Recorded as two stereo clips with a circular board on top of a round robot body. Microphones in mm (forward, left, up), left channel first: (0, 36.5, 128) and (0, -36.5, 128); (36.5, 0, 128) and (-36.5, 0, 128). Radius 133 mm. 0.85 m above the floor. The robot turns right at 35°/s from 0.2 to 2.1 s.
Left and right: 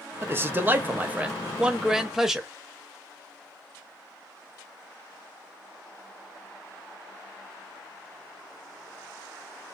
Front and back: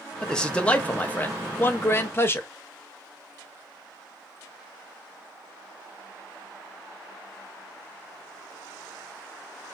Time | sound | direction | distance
0.2 | a man speaking | 75° right | 0.8 m